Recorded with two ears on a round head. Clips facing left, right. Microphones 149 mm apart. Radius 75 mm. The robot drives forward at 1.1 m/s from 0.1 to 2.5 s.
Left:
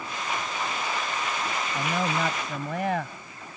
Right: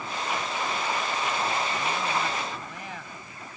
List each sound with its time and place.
1.8 s a man speaking: 60° left (ahead or behind); by 3.2 s 55° left (ahead or behind)